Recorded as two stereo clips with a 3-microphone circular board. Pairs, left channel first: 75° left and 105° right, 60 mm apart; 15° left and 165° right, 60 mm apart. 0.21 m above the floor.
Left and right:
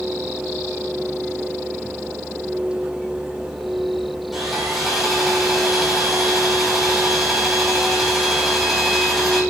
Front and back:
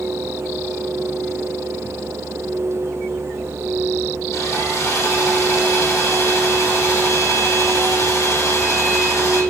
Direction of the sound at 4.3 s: 15° right.